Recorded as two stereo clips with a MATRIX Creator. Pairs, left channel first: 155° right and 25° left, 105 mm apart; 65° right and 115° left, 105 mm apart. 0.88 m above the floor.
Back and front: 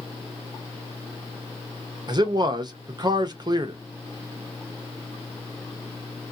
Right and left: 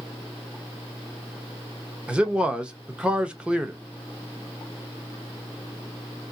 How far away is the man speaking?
About 0.6 m.